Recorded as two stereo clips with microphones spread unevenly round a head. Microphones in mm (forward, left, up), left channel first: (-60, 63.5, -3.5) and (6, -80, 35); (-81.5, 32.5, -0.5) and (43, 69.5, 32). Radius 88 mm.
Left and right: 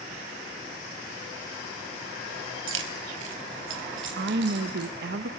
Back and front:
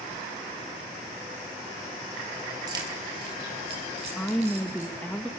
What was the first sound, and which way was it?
Keys jangling, 50° right.